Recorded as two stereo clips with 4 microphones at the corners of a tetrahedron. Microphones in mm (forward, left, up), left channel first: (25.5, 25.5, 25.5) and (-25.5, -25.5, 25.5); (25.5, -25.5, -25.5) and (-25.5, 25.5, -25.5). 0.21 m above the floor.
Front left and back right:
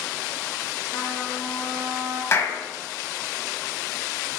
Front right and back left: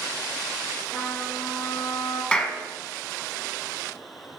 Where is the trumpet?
120° right, 3 m.